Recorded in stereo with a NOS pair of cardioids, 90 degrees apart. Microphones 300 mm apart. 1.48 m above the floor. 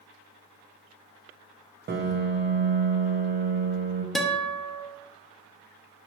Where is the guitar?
Straight ahead, 1.0 m.